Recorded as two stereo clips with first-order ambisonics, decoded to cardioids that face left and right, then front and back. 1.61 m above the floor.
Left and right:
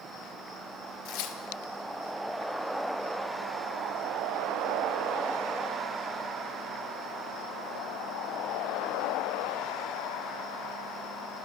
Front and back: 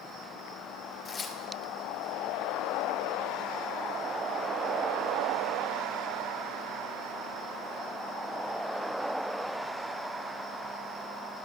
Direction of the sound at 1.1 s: 70° left.